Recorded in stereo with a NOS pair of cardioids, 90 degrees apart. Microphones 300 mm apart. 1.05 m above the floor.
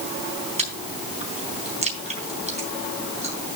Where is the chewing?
20° right, 4 m.